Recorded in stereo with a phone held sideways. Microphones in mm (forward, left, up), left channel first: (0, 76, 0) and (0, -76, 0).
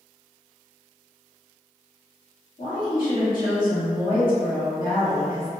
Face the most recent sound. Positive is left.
turn(degrees=70)  # may be behind; listen again after turning